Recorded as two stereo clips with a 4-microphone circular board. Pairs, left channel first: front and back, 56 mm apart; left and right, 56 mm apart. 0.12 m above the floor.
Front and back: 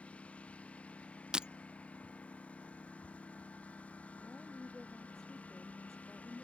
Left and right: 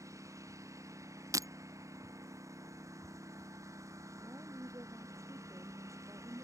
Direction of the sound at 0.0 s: 70° right.